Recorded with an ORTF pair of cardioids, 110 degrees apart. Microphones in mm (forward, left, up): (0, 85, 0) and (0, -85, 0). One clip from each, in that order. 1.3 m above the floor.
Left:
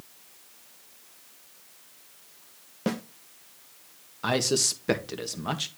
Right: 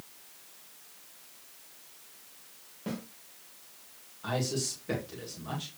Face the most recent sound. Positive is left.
turn(degrees=70)